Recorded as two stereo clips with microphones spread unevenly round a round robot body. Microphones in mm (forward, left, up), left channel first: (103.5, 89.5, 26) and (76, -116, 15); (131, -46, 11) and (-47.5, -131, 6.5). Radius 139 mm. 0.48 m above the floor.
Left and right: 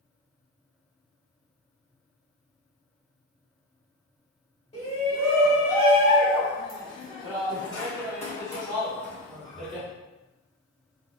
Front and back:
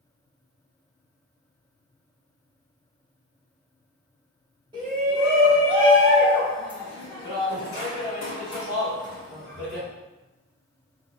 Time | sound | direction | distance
4.7 | a shout | 140° left | 1.7 m